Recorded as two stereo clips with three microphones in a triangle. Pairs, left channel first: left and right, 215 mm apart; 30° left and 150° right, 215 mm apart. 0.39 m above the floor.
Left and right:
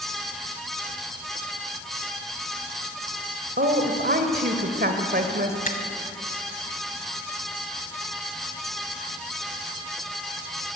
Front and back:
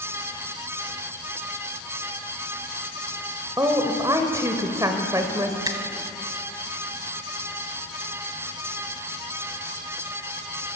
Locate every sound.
3.6 s a woman speaking: 80° right, 1.6 m
5.7 s a finger snap: 140° left, 1.8 m